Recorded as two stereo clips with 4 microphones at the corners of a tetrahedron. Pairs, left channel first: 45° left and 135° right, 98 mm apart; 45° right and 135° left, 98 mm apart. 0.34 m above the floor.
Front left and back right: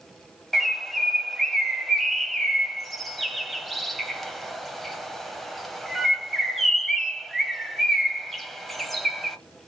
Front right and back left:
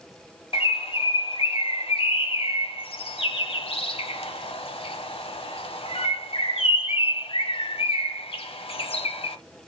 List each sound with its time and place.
0.5 s a bird: 45° right, 0.7 m